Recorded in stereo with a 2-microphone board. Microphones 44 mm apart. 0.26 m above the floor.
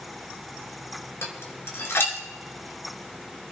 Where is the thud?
I don't hear a thud.